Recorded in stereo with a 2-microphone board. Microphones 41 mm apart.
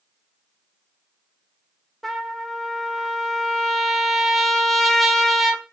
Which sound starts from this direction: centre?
A trumpet, at 2.0 s.